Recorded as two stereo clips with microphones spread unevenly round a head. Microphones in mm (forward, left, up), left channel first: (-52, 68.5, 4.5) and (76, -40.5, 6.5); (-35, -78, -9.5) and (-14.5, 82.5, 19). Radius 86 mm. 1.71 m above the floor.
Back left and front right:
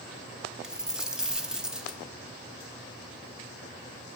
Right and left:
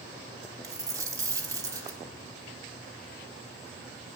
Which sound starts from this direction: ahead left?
A dropped coin, at 0.6 s.